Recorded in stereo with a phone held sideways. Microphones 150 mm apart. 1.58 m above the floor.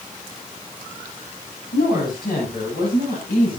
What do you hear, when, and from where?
1.7 s a woman speaking: 80° left, 10 m; by 3.6 s 85° left, 8.5 m